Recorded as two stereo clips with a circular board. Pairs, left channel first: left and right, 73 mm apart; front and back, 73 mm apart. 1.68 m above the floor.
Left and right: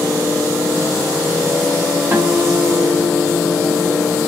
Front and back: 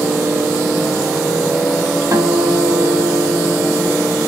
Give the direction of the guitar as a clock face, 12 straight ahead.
5 o'clock.